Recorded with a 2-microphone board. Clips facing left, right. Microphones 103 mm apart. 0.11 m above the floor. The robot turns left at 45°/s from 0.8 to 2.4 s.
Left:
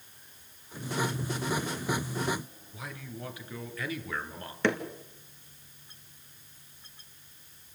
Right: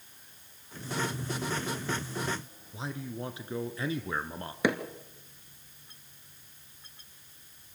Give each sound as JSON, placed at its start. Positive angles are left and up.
{"t": 2.7, "sound": "a man speaking", "side_deg": -30, "distance_m": 1.7}
{"t": 4.6, "sound": "hammering", "side_deg": -10, "distance_m": 1.8}